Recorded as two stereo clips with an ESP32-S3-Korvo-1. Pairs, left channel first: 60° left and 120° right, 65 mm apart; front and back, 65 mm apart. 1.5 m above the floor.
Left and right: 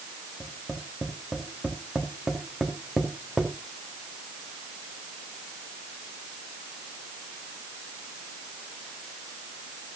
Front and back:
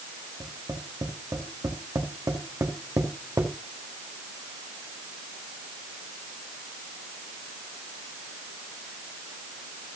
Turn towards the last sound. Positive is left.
turn(degrees=160)